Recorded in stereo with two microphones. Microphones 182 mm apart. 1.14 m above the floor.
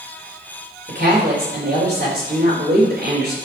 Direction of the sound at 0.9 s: 60° right (ahead or behind).